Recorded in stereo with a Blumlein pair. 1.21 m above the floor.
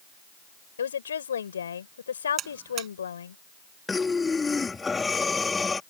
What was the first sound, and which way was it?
A woman speaking, 70° left.